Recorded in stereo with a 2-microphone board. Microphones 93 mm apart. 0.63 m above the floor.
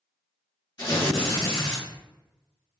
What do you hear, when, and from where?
0.8 s tearing paper: 40° left (ahead or behind), 1.4 m